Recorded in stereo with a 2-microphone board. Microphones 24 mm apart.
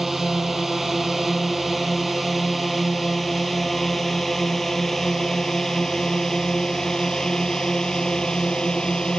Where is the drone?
5° right (ahead or behind); by 9.2 s 35° left (ahead or behind).